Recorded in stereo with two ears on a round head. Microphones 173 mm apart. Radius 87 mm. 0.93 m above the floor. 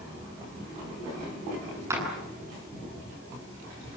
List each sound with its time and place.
1.9 s a clap: 15° right (ahead or behind), 9.5 m